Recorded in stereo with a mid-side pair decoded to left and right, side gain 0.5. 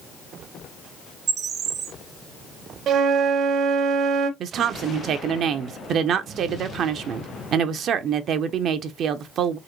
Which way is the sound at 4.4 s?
60° right.